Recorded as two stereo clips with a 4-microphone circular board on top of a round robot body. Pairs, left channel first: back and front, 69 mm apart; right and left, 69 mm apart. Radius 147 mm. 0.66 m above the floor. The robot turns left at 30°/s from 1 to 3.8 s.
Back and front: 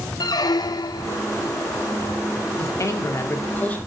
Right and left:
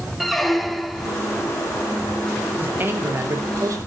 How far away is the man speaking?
About 2.5 m.